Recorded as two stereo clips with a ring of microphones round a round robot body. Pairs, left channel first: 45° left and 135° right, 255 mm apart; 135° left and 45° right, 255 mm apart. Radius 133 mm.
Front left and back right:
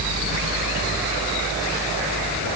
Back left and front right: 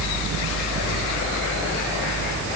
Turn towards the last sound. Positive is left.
No sound to turn to.